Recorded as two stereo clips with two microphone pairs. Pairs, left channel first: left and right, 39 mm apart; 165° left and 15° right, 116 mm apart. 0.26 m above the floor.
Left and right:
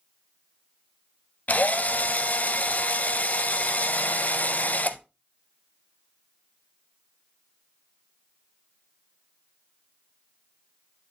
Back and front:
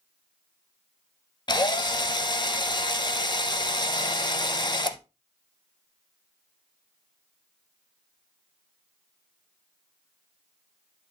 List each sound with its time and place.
1.5 s a drill: 120° left, 0.6 m